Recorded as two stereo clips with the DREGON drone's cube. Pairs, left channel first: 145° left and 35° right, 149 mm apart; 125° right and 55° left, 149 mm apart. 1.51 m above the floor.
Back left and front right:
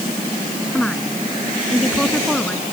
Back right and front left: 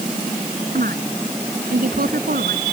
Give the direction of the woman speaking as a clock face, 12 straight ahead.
10 o'clock.